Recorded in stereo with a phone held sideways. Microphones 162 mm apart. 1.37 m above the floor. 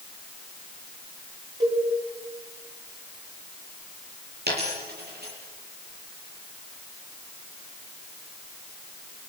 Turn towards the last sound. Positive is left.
turn(degrees=-80)